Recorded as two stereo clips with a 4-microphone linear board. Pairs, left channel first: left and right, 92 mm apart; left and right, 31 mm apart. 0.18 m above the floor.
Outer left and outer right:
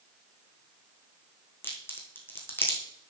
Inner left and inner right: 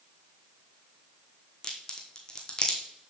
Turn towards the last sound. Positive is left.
turn(degrees=25)  # may be behind; listen again after turning